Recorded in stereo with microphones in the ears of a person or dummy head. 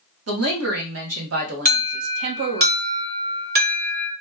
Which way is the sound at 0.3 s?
75° right (ahead or behind).